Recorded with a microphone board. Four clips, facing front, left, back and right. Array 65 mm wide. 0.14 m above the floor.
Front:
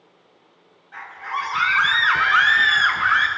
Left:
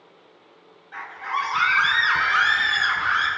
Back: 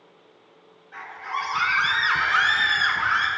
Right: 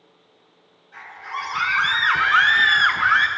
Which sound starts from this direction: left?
A scream, at 0.9 s.